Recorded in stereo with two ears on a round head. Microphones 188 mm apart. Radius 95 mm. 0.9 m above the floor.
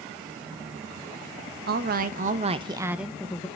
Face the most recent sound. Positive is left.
turn(degrees=15)  # may be behind; listen again after turning